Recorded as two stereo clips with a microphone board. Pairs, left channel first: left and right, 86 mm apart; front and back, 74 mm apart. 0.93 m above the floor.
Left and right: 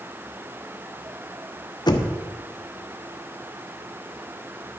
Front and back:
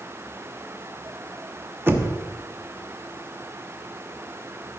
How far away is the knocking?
About 0.9 m.